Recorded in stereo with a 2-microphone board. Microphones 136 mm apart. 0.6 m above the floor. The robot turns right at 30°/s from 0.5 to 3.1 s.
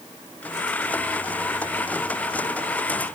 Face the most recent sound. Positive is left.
No sound to turn to.